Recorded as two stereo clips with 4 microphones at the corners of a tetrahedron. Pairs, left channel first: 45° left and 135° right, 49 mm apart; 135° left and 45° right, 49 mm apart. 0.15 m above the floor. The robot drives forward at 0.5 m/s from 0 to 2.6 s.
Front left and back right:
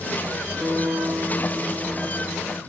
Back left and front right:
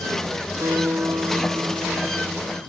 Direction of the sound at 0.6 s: 50° right.